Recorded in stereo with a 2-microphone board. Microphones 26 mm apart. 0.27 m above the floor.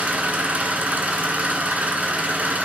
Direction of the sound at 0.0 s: 70° right (ahead or behind).